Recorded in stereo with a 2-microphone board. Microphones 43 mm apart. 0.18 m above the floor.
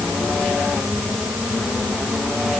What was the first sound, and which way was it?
Only background noise.